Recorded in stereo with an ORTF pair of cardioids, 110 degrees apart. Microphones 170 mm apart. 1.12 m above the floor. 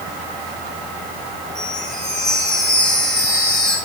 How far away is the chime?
About 7 m.